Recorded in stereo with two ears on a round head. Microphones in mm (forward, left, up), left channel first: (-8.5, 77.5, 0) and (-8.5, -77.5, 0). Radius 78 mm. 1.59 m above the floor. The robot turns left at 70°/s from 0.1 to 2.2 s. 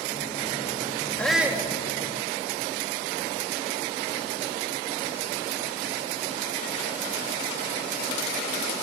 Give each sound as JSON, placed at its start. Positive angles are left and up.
{"t": 1.2, "sound": "a shout", "azimuth_deg": 10, "distance_m": 3.0}